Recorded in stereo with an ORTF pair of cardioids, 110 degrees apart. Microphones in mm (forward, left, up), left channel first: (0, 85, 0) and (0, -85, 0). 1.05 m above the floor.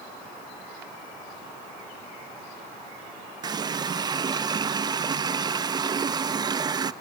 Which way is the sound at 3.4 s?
25° right.